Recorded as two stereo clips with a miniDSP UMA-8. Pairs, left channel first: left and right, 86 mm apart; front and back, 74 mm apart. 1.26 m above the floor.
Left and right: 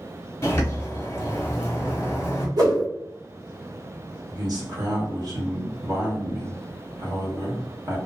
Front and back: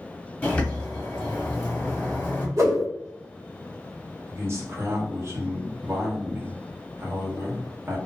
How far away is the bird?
About 0.9 m.